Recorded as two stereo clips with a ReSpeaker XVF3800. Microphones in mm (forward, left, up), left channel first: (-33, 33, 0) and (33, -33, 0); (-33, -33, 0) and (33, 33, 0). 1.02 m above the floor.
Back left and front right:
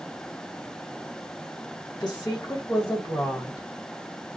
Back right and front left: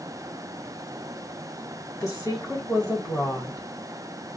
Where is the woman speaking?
175° left, 1.3 m.